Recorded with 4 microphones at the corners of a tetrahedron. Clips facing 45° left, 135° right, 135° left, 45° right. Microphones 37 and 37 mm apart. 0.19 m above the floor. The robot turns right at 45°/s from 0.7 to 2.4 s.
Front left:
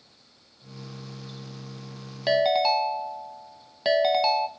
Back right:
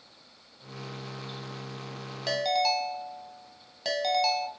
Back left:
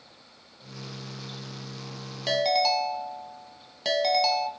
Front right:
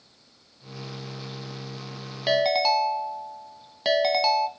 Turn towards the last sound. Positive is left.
turn(degrees=5)